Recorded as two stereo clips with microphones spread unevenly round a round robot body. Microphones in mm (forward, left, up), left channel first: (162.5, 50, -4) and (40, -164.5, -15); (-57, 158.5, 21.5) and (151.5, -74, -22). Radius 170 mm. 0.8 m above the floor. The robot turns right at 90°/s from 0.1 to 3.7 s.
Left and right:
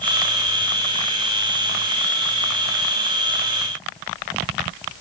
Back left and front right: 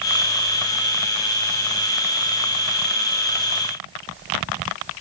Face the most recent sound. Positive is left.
No sound to turn to.